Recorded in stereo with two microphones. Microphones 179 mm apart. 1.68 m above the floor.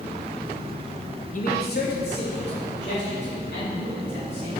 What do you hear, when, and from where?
1.3 s a man speaking: 45° left (ahead or behind), 0.7 m; by 4.5 s 75° left (ahead or behind), 5.5 m